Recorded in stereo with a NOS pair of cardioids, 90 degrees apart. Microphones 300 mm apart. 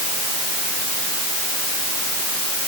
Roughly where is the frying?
I don't hear frying.